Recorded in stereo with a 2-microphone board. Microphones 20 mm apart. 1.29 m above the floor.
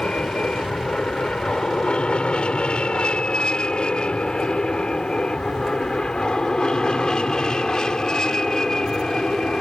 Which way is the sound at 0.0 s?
50° left (ahead or behind).